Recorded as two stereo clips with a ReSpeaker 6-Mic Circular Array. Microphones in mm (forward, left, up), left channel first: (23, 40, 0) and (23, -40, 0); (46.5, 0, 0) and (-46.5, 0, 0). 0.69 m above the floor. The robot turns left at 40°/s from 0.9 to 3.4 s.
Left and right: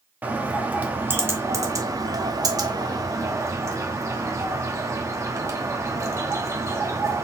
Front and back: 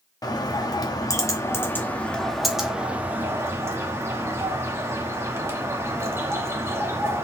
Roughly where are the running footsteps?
No running footsteps in this recording.